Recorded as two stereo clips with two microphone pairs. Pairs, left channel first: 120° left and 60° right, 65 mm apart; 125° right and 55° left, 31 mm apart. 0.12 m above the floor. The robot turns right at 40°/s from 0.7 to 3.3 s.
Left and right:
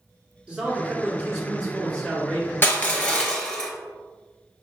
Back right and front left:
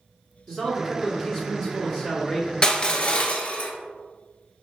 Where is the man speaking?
5° right, 1.8 m; by 2.5 s 70° left, 1.8 m.